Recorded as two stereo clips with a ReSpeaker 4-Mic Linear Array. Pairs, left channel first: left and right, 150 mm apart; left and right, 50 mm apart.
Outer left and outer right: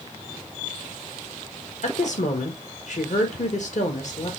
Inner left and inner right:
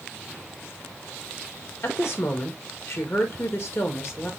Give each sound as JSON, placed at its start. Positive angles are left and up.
{"t": 1.8, "sound": "a woman speaking", "side_deg": 60, "distance_m": 1.5}